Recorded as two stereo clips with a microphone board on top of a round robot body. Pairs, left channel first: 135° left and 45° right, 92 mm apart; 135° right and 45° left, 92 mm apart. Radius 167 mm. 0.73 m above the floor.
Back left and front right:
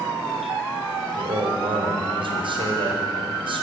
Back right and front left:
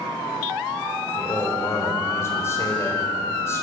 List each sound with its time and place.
1.2 s a man speaking: 75° right, 4.5 m